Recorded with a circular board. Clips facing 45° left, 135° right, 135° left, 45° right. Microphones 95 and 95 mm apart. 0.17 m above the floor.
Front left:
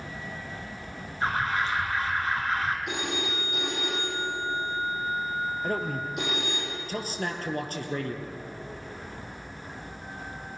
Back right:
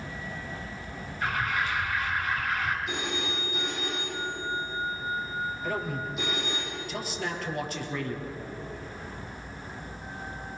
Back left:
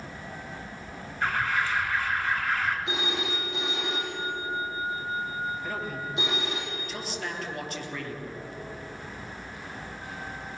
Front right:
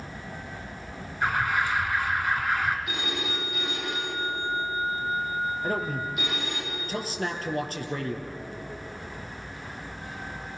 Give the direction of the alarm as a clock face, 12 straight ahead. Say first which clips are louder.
Front left 2 dB, front right 2 dB; 11 o'clock.